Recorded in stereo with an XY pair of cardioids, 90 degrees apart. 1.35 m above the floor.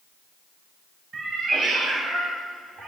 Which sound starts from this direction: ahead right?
A cat meowing, at 1.1 s.